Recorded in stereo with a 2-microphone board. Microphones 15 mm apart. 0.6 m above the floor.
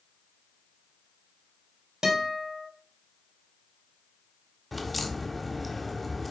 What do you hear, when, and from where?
2.0 s a guitar: 45° right (ahead or behind), 3 m
4.7 s a crack: 5° left (ahead or behind), 1.1 m